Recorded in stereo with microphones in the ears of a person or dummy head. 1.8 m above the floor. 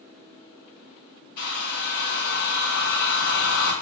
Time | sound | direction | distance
1.4 | a hair dryer | 65° left (ahead or behind) | 3 m